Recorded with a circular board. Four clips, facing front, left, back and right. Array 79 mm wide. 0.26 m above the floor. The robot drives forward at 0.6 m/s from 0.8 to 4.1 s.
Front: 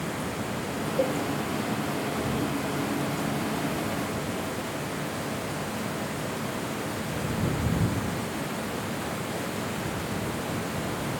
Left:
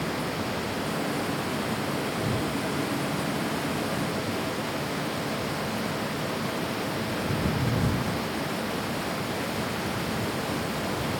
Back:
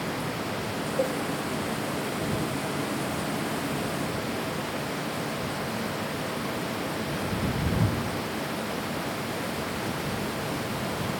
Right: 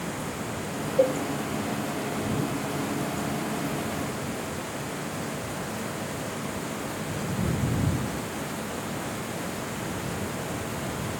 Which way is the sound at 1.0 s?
85° right.